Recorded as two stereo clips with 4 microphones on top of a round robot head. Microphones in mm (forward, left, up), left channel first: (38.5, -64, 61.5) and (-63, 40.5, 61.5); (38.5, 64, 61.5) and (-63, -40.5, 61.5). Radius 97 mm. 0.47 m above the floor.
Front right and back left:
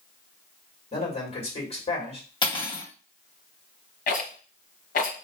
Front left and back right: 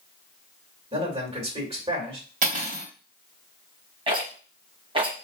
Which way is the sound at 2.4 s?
105° right.